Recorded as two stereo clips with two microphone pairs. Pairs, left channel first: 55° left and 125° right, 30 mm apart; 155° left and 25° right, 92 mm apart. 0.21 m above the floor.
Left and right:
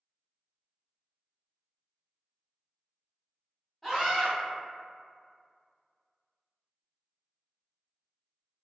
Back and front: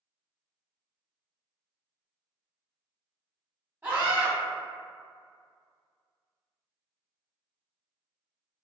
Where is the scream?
5° right, 1.5 m.